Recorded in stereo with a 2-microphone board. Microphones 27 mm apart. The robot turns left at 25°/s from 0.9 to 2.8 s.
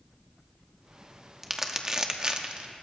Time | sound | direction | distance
1.4 | crumpling | 10° right (ahead or behind) | 0.9 m